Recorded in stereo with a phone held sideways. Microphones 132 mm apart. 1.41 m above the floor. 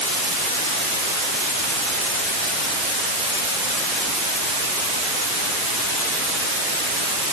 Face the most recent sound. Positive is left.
No sound to turn to.